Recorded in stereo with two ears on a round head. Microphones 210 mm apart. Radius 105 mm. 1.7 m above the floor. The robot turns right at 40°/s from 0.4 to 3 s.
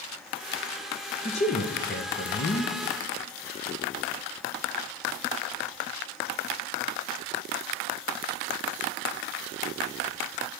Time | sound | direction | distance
1.2 | a man speaking | 40° left | 0.5 m